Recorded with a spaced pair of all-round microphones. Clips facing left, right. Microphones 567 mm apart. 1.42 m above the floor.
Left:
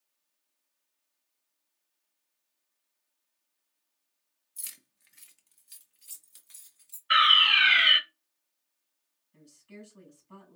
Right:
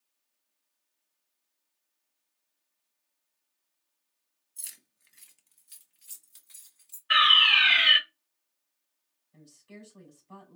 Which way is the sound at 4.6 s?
30° left (ahead or behind).